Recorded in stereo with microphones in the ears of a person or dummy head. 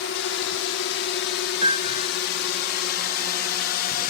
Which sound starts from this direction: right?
A piano, at 1.6 s.